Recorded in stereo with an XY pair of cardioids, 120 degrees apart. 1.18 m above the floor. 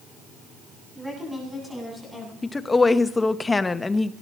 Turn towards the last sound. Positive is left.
turn(degrees=20)